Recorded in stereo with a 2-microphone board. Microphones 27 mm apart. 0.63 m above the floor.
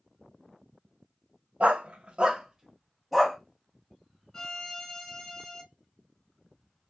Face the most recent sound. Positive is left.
turn(degrees=15)  # may be behind; listen again after turning